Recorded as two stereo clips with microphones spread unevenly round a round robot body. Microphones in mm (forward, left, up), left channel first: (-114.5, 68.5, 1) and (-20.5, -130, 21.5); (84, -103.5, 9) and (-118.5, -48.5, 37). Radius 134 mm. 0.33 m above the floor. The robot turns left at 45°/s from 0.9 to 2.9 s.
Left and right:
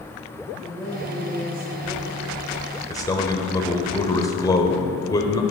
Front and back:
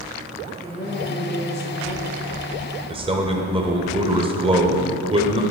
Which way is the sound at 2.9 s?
130° left.